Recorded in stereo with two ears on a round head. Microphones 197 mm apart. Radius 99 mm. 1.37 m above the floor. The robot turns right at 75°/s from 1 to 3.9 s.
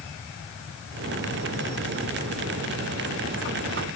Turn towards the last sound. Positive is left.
No sound to turn to.